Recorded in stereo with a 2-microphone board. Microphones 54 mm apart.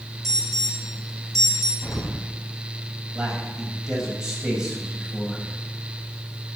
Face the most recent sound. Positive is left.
turn(degrees=-10)  # may be behind; listen again after turning